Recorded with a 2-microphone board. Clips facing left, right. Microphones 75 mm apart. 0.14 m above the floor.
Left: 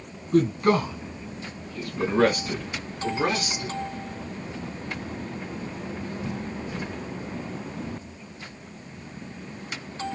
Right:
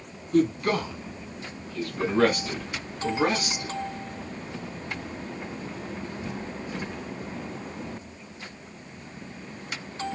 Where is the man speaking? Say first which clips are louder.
Left 2 dB; 35° left (ahead or behind), 1.9 m; by 3.8 s 20° right (ahead or behind), 1.7 m.